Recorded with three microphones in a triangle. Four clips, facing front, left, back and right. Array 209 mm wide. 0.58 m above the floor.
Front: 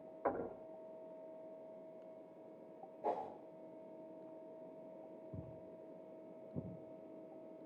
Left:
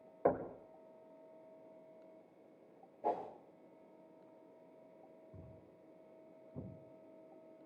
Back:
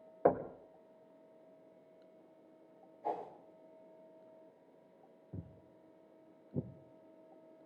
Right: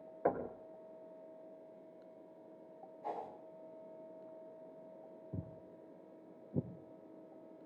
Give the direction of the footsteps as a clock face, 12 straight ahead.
3 o'clock.